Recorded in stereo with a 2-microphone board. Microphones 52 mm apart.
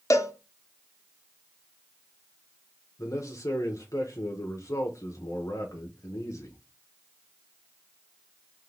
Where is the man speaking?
75° left (ahead or behind), 1.0 m.